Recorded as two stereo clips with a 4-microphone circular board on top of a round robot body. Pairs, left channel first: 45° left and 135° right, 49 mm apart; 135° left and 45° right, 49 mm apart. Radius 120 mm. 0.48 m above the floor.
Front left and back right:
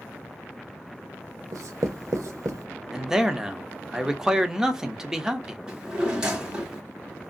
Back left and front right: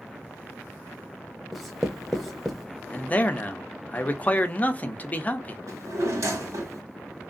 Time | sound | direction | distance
1.5 | writing | 140° right | 0.5 m
2.9 | a man speaking | 155° left | 0.9 m
5.7 | a drawer | 60° right | 1.7 m